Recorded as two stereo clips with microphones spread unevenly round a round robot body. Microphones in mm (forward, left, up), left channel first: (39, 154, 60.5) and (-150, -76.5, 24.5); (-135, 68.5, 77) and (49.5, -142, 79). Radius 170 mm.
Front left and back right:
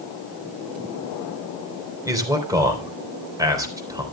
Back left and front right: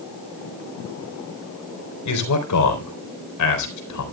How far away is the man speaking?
About 4 m.